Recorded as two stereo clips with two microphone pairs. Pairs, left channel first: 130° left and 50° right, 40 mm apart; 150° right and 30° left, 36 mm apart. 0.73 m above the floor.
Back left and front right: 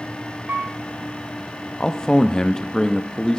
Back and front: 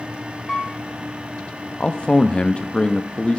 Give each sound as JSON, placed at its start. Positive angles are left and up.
{"t": 0.5, "sound": "a piano", "azimuth_deg": -75, "distance_m": 1.7}
{"t": 1.8, "sound": "a man speaking", "azimuth_deg": -165, "distance_m": 0.5}